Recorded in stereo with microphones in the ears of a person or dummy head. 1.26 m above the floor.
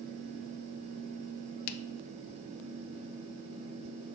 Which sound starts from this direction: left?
A finger snap, at 1.7 s.